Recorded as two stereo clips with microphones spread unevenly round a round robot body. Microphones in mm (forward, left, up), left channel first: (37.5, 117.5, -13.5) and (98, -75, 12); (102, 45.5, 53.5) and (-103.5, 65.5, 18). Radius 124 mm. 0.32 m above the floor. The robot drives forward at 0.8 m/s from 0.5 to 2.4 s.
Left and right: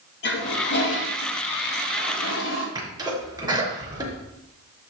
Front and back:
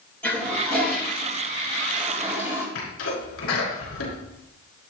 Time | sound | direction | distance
0.2 | a toilet flushing | 80° left | 5 m
2.8 | a sneeze | straight ahead | 4.5 m